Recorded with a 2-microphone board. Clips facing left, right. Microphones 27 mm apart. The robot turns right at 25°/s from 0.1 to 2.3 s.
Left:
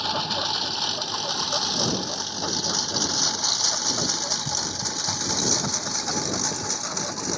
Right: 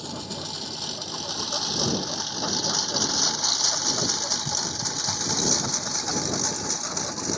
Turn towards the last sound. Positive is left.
turn(degrees=10)  # may be behind; listen again after turning